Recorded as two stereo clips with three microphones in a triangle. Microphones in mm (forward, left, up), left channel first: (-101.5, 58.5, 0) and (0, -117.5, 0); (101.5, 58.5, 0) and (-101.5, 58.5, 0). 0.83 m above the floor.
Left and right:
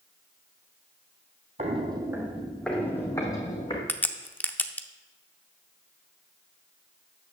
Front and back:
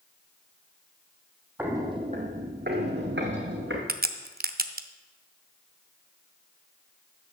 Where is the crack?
160° right, 0.5 m.